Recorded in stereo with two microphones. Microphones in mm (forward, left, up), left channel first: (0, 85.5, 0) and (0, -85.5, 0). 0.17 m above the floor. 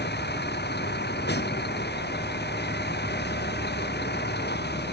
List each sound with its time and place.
0.0 s a vehicle: 80° left